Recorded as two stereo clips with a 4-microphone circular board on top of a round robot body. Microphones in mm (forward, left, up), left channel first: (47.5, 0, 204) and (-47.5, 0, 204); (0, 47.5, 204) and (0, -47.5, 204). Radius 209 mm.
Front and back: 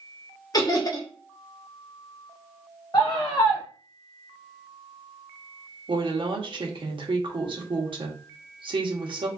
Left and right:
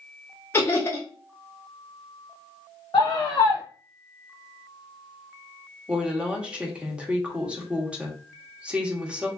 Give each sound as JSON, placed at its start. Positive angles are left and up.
{"t": 0.5, "sound": "laughter", "azimuth_deg": 30, "distance_m": 1.0}
{"t": 2.9, "sound": "a scream", "azimuth_deg": 50, "distance_m": 0.7}
{"t": 5.9, "sound": "a woman speaking", "azimuth_deg": -165, "distance_m": 1.1}